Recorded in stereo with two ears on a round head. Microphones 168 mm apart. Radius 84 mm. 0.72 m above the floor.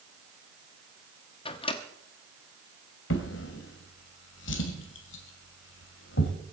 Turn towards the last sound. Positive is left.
turn(degrees=75)  # may be behind; listen again after turning